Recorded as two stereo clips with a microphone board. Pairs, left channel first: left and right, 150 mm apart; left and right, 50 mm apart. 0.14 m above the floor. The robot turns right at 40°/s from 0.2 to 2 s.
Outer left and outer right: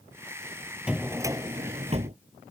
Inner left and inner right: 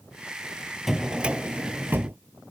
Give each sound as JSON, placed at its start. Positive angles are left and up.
{"t": 0.9, "sound": "a drawer", "azimuth_deg": -175}